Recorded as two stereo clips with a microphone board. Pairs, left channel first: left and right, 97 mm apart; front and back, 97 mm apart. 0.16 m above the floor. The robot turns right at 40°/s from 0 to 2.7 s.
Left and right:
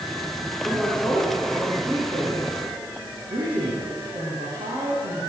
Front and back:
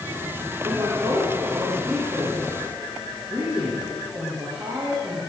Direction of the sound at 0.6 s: 170° left.